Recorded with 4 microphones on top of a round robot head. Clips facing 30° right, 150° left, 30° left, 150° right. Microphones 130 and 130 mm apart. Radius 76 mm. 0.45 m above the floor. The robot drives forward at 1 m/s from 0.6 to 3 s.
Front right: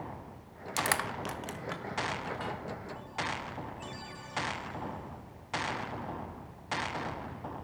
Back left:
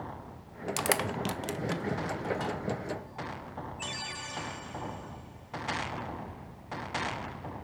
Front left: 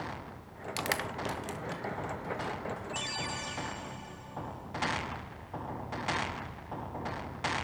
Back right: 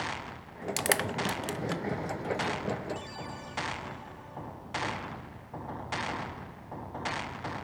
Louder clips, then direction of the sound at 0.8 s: Back left 2 dB, back right 4 dB; 130° right.